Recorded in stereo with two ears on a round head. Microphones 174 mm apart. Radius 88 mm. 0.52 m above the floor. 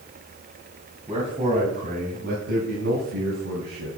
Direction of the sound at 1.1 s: 30° right (ahead or behind).